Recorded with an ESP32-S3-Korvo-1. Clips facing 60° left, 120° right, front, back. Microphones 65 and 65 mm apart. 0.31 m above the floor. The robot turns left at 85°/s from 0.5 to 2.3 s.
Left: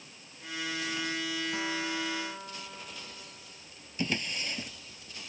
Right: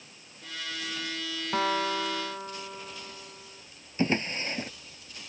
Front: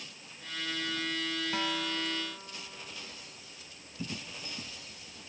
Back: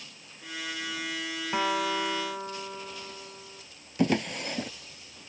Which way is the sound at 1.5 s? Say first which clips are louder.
Right 11 dB, back 10 dB; 120° right.